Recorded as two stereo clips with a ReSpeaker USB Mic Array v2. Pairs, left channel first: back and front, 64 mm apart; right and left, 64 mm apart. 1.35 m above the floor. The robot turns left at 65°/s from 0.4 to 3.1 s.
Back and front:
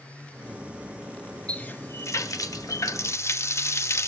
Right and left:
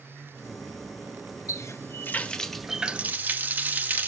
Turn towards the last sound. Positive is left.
turn(degrees=145)